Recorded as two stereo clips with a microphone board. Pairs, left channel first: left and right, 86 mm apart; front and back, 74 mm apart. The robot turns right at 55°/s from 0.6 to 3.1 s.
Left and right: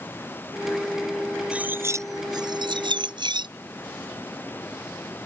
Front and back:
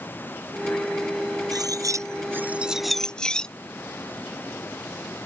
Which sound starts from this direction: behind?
Cutlery clinking, at 1.5 s.